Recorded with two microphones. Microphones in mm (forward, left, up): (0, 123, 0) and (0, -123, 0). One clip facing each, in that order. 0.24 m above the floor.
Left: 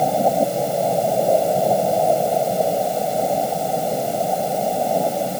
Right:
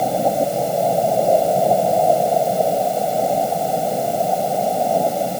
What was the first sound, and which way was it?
Only background noise.